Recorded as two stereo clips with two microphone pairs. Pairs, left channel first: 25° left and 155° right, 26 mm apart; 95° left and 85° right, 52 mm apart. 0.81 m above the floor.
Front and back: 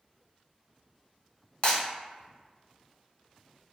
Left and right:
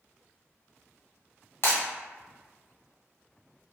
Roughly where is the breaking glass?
Ahead left.